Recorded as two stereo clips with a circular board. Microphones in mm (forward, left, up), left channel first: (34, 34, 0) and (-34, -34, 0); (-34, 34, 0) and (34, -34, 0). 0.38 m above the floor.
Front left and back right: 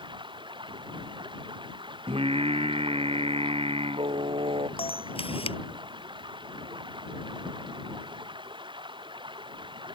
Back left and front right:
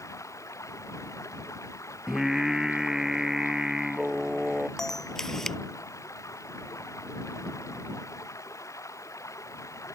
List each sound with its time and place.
0.0 s running water: 165° right
2.1 s singing: 130° right
4.8 s a camera shutter: 50° left